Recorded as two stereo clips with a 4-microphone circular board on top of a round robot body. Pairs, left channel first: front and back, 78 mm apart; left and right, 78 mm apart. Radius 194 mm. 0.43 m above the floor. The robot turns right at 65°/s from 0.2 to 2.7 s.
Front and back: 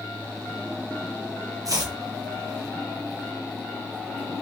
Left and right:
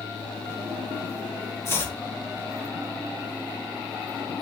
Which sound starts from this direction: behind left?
Chopping, at 1.6 s.